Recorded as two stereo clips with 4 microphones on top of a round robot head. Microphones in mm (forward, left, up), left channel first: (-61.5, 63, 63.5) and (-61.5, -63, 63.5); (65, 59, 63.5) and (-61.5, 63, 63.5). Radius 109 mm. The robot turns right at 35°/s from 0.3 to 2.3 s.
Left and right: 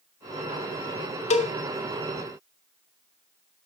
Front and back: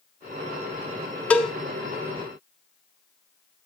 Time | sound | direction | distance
1.3 | a cowbell | 75° left | 1.6 m